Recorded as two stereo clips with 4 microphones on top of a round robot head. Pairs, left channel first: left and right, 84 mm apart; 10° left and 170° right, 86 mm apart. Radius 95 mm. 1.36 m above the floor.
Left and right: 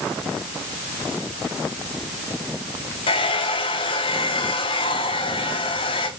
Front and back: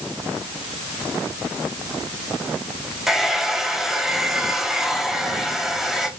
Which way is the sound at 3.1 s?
100° left.